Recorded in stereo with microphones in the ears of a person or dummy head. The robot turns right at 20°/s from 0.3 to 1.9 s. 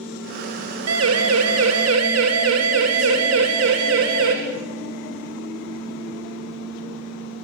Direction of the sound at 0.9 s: 85° right.